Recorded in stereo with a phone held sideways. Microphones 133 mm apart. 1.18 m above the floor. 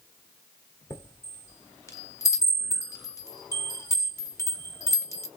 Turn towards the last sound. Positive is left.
turn(degrees=25)  # may be behind; listen again after turning